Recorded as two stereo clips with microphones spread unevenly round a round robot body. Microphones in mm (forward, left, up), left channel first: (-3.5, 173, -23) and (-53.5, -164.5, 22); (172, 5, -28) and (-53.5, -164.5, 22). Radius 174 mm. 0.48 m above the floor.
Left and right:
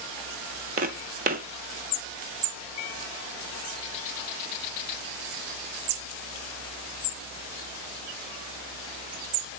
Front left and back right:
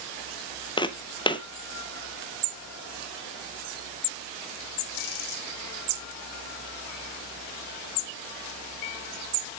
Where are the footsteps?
45° right, 0.7 m.